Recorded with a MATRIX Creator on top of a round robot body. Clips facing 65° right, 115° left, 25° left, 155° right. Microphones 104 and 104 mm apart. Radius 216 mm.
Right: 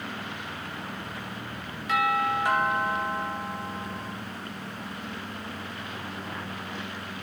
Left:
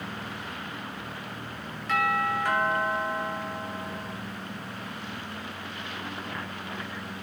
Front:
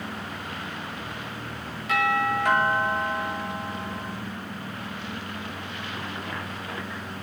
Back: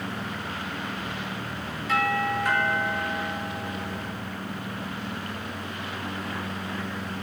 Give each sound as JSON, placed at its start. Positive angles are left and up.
{"t": 1.9, "sound": "a doorbell", "azimuth_deg": 10, "distance_m": 9.0}